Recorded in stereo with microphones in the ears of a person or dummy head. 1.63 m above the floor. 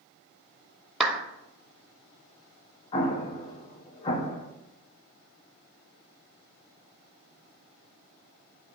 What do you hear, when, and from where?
1.0 s a clap: centre (ahead or behind), 0.7 m
2.9 s an explosion: 25° left (ahead or behind), 0.8 m